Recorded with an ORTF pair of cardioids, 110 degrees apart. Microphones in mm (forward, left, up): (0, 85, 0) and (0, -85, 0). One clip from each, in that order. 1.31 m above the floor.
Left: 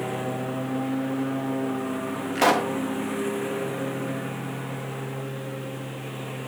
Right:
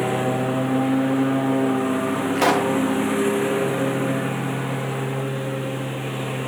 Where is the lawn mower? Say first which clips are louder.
Right 7 dB; 40° right.